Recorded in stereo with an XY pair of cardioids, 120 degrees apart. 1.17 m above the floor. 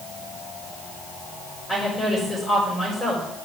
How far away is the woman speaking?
About 4 m.